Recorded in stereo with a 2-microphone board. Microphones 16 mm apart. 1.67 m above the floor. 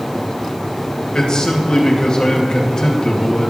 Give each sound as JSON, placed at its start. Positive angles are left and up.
{"t": 1.1, "sound": "a man speaking", "side_deg": 40, "distance_m": 2.5}